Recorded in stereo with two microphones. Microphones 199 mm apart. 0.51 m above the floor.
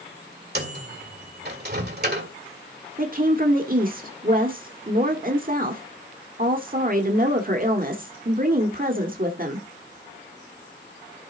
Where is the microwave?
55° right (ahead or behind), 1.7 m.